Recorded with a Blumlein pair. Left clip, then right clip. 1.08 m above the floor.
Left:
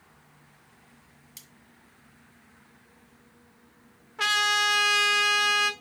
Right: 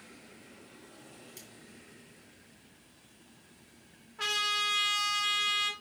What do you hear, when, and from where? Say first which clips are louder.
1.4 s cutlery clinking: left 4 dB; 20° left, 1.6 m
4.2 s a trumpet: left 7 dB; 25° left, 1.1 m